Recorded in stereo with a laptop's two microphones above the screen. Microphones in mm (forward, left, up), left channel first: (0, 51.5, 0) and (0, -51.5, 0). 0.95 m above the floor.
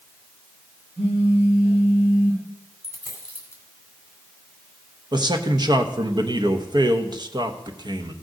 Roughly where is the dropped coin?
Left.